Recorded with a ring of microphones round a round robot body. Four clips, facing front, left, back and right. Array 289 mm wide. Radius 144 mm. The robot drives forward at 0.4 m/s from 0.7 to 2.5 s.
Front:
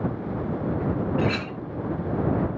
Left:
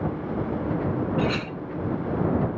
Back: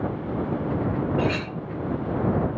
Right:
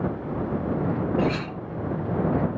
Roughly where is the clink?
Left.